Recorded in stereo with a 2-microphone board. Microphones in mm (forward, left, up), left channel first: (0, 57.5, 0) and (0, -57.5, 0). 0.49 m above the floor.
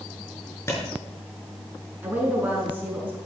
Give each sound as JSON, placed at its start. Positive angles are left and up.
{"t": 0.7, "sound": "a clap", "side_deg": 25, "distance_m": 5.5}
{"t": 2.0, "sound": "a woman speaking", "side_deg": -15, "distance_m": 6.0}